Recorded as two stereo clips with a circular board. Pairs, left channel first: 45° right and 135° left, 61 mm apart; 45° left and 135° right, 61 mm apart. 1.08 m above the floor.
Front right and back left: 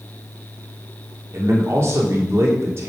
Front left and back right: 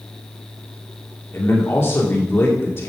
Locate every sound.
1.3 s a man speaking: 95° left, 2.5 m